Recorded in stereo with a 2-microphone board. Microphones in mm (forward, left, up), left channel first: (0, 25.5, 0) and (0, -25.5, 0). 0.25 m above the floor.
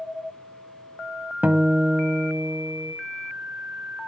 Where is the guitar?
35° right (ahead or behind), 1.0 m.